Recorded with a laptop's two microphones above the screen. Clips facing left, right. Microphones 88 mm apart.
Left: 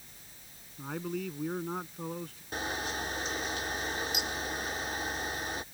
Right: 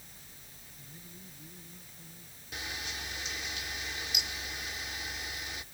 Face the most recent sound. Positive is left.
turn(degrees=45)  # may be behind; listen again after turning